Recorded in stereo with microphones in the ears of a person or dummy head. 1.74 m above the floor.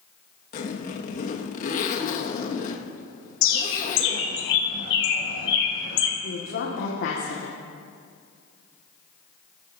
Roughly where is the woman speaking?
Left.